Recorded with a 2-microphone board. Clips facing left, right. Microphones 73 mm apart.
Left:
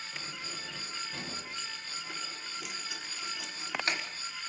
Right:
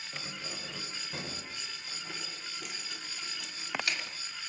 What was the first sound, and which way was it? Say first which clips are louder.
Keys jangling: right 3 dB; 30° right (ahead or behind).